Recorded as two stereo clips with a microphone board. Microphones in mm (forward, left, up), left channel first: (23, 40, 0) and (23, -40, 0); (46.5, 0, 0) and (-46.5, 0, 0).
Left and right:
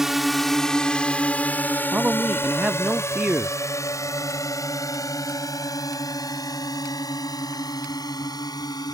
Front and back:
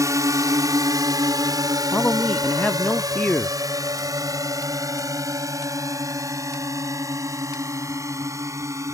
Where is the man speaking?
55° right.